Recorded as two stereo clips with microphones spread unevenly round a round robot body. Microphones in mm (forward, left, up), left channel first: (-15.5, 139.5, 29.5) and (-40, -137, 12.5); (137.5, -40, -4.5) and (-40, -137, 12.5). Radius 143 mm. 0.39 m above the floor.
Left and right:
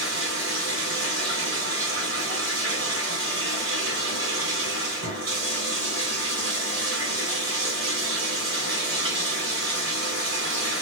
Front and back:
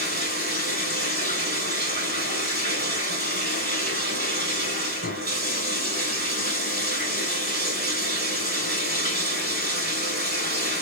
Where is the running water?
125° right, 1.8 m.